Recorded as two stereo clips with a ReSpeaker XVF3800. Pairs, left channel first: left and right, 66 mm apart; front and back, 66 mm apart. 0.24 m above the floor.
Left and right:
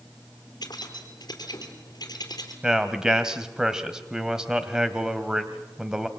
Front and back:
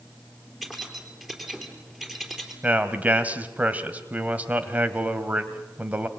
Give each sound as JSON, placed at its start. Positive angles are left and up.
{"t": 0.6, "sound": "keys jangling", "azimuth_deg": 95, "distance_m": 4.0}
{"t": 2.6, "sound": "a man speaking", "azimuth_deg": -155, "distance_m": 1.4}